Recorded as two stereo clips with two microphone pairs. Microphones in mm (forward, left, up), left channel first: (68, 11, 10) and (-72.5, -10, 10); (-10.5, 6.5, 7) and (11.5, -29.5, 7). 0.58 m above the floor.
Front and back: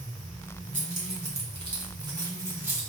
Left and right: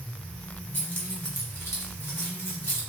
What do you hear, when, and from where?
0.7 s keys jangling: 160° left, 1.6 m; by 2.8 s 110° left, 1.3 m